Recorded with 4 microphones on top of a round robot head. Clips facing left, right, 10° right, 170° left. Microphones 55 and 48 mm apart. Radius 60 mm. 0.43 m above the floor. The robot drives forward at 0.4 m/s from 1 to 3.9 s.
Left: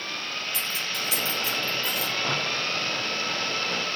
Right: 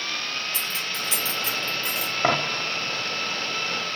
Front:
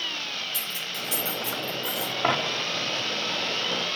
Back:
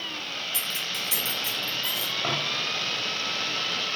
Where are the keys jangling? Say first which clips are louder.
Right 1 dB, back 2 dB; 150° right, 3.5 m; by 2.1 s 155° right, 4 m.